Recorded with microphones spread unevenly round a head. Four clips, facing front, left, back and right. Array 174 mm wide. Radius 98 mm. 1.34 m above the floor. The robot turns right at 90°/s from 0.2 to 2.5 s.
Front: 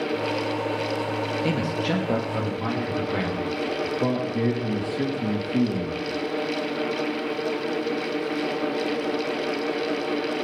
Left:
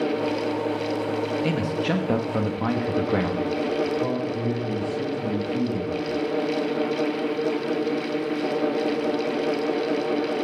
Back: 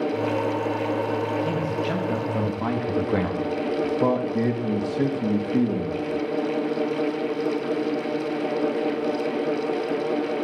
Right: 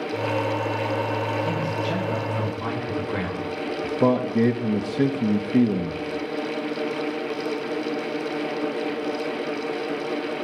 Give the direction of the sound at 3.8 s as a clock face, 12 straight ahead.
3 o'clock.